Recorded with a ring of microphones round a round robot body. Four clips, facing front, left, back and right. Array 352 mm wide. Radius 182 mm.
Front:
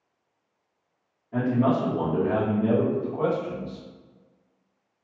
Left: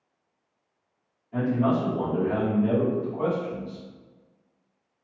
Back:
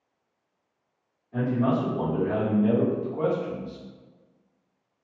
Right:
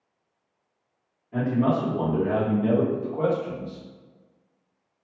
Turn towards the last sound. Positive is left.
turn(degrees=-135)